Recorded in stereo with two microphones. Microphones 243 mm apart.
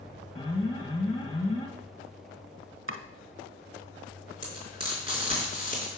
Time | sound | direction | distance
0.3 | an alarm | 15° left (ahead or behind) | 2 m
2.9 | chopping | 55° right (ahead or behind) | 1.0 m
4.4 | frying | 25° right (ahead or behind) | 4 m